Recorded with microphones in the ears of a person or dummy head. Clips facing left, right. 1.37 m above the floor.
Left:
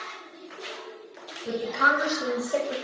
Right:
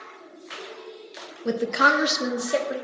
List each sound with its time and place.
1.4 s a woman speaking: 65° right (ahead or behind), 0.5 m; by 2.8 s 25° right (ahead or behind), 1.0 m